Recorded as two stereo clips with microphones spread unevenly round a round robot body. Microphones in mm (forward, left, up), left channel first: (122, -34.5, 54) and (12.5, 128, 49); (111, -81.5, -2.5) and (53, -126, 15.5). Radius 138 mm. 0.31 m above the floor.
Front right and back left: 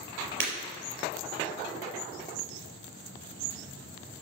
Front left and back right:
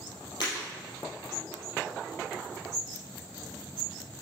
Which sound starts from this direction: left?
Breaking glass, at 0.4 s.